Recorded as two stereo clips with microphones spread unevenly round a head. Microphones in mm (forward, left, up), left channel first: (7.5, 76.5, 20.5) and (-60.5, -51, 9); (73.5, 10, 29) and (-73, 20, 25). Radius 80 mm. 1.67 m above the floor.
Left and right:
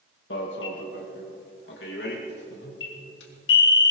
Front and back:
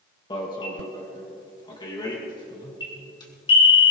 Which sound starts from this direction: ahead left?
An alarm, at 0.3 s.